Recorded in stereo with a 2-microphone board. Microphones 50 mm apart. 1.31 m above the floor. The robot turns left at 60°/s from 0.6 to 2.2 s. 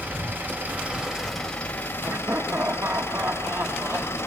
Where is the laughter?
50° right (ahead or behind), 1.5 m; by 4.2 s 60° right (ahead or behind), 1.5 m.